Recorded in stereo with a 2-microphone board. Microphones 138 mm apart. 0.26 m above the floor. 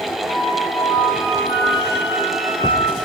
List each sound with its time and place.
0.3 s a flute: 30° right (ahead or behind), 1.2 m